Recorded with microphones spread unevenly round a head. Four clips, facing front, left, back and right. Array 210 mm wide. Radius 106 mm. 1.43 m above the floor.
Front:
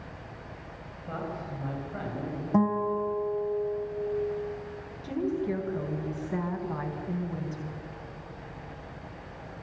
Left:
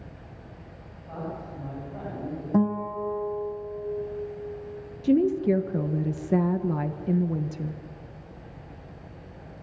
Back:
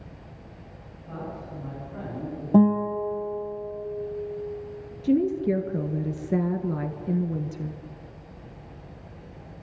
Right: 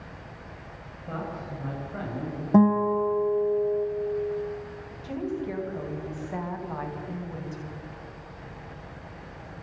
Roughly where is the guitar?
Behind right.